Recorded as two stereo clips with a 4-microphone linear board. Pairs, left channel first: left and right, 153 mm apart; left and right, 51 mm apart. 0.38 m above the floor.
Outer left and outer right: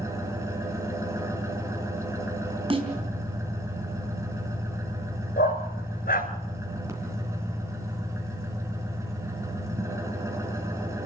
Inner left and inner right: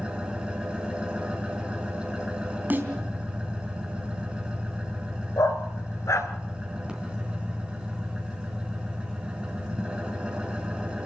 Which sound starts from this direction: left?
A dog barking, at 5.4 s.